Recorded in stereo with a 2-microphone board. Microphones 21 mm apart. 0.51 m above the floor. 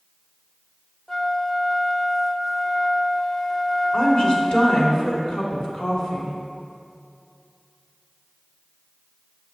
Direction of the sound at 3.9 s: 45° left (ahead or behind).